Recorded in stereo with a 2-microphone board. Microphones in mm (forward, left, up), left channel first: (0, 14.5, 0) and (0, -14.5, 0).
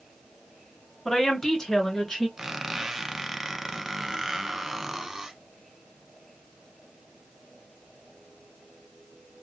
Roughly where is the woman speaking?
Centre.